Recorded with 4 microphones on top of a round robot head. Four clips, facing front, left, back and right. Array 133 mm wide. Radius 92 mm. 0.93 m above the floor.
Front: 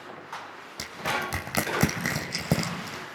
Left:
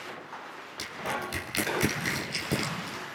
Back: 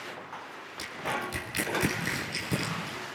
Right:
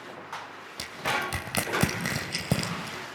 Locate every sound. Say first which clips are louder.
0.8 s crushing: right 3 dB, front 3 dB; 30° right, 2.5 m